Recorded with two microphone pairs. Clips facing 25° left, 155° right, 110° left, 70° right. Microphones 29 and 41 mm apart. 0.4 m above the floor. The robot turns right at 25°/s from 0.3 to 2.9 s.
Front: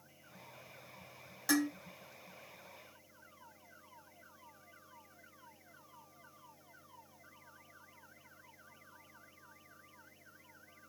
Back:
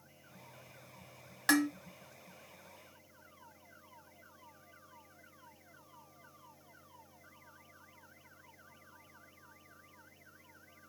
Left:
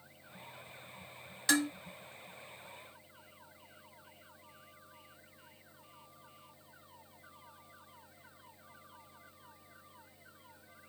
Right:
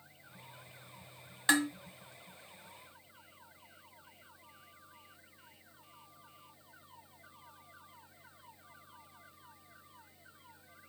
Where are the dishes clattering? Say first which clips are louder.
Back 3 dB, right 2 dB; 135° right, 1.9 m; by 1.7 s 130° right, 1.9 m.